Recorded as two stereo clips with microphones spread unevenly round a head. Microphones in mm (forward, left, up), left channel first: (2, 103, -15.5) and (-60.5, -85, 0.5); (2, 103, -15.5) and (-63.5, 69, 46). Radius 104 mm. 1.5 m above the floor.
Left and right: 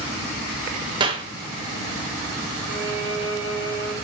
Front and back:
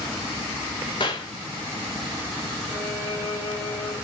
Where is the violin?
65° right, 6.5 m.